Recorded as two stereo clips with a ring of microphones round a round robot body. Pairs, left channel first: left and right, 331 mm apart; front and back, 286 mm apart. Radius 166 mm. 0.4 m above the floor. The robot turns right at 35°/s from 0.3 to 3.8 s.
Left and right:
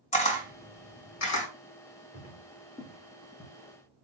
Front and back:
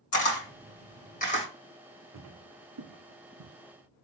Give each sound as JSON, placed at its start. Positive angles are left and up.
{"t": 0.1, "sound": "a camera shutter", "azimuth_deg": 25, "distance_m": 2.0}
{"t": 2.1, "sound": "footsteps", "azimuth_deg": 160, "distance_m": 1.9}